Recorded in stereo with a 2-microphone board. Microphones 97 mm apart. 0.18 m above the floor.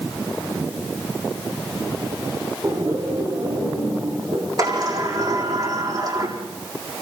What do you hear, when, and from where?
2.6 s laughter: 35° right (ahead or behind), 7 m; by 4.5 s 55° right (ahead or behind), 6.5 m
4.6 s a sliding door: 40° right (ahead or behind), 7 m